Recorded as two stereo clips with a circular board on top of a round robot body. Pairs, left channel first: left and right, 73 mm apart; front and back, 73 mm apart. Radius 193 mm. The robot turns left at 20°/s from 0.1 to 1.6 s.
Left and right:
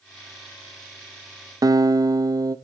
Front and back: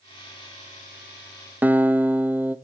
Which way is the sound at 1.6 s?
115° right.